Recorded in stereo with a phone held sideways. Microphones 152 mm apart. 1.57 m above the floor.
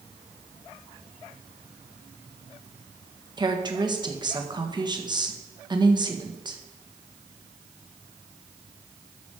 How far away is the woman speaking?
About 1.5 m.